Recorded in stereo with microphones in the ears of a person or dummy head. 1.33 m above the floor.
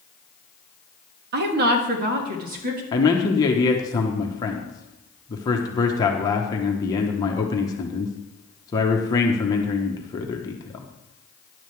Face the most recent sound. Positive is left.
turn(degrees=15)  # may be behind; listen again after turning